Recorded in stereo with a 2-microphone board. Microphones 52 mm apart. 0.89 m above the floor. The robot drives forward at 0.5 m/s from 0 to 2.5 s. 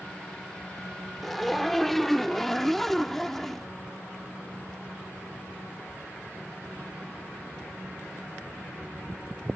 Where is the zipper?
5° left (ahead or behind).